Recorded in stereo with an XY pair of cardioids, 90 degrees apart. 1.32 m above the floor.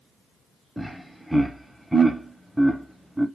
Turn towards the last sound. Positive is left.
turn(degrees=0)